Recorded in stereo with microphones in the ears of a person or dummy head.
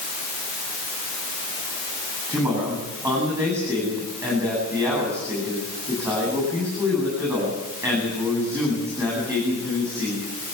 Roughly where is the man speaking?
Centre.